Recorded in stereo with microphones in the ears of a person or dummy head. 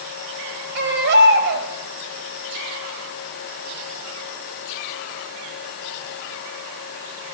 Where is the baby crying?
70° right (ahead or behind), 3.5 m.